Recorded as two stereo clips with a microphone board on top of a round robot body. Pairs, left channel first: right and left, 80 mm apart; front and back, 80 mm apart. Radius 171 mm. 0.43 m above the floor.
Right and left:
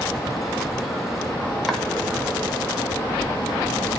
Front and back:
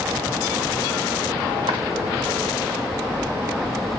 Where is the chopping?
Straight behind, 1.8 m.